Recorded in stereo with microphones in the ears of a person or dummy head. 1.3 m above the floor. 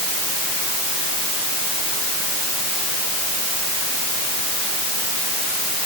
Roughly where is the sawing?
No sawing in this recording.